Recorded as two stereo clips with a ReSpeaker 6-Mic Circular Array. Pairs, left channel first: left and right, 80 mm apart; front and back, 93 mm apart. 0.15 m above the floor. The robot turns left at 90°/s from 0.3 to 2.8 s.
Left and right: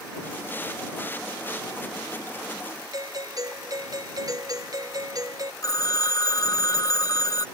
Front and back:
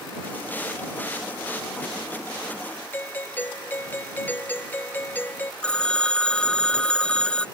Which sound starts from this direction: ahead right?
A doorbell, at 2.9 s.